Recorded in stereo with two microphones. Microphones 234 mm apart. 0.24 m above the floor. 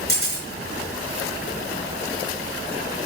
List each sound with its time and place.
0.1 s a camera shutter: 40° left (ahead or behind), 4 m